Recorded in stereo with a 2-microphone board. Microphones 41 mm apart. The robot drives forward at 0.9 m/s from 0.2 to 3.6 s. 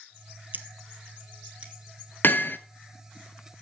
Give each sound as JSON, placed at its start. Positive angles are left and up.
{"t": 0.5, "sound": "scissors", "side_deg": -45, "distance_m": 1.3}
{"t": 2.2, "sound": "hammering", "side_deg": 55, "distance_m": 1.1}